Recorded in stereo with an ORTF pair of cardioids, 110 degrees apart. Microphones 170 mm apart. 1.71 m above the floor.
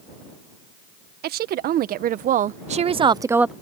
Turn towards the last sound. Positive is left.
turn(degrees=-5)